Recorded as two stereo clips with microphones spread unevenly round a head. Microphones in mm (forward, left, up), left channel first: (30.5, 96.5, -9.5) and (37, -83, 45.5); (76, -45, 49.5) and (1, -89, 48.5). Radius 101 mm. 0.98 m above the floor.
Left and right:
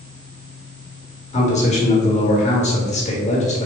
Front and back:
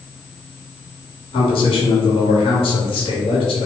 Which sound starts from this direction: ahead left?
A man speaking, at 1.3 s.